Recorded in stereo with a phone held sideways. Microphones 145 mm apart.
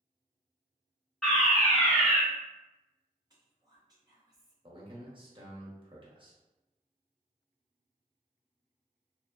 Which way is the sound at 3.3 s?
25° right (ahead or behind).